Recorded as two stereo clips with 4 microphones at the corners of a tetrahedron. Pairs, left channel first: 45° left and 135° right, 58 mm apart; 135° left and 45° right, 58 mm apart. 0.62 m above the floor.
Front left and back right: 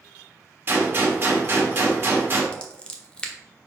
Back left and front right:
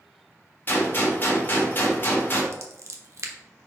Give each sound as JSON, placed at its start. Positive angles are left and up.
{"t": 0.7, "sound": "a gunshot", "azimuth_deg": 180, "distance_m": 1.8}
{"t": 2.5, "sound": "scissors", "azimuth_deg": -25, "distance_m": 1.1}